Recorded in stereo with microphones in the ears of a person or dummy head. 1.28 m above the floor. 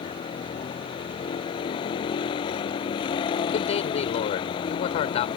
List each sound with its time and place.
0.0 s a vehicle: 35° left (ahead or behind)
3.5 s a man speaking: 30° left (ahead or behind)